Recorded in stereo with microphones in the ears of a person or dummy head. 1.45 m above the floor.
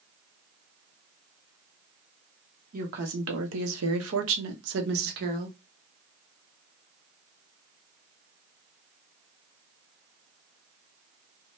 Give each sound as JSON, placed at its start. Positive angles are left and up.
{"t": 2.7, "sound": "a woman speaking", "side_deg": -50, "distance_m": 0.9}